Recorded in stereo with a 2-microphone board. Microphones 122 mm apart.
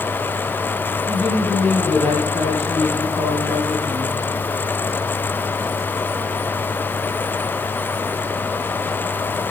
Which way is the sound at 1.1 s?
65° right (ahead or behind).